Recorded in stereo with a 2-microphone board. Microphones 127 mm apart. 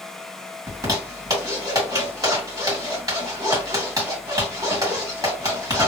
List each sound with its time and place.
0.7 s a zipper: 30° right (ahead or behind), 2 m